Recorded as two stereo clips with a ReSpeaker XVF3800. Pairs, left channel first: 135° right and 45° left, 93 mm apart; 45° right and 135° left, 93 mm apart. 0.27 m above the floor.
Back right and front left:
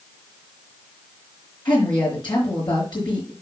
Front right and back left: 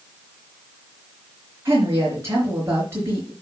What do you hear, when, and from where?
1.6 s a woman speaking: 165° right, 3.5 m